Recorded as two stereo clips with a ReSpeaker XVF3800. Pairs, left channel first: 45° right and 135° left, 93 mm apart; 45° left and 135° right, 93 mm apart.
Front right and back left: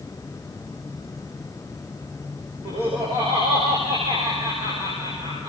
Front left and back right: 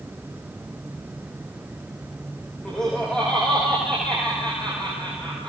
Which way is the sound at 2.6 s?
130° left.